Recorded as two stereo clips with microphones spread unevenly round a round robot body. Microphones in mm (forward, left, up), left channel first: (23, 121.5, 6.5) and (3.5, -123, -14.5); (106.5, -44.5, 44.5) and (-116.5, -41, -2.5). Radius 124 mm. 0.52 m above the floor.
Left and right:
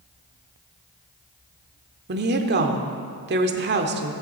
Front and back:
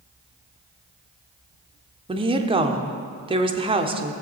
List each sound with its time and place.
2.1 s a woman speaking: 130° right, 1.0 m